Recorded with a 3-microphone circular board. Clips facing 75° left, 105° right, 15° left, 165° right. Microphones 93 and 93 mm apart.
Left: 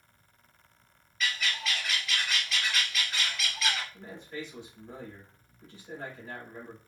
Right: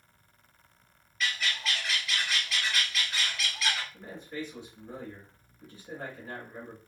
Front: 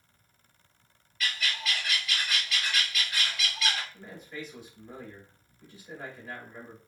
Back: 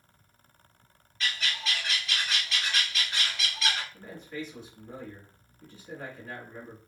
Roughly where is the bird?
Behind.